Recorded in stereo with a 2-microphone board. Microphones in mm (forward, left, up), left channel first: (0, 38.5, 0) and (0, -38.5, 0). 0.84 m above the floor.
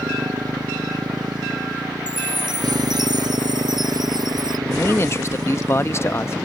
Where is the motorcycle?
60° right (ahead or behind).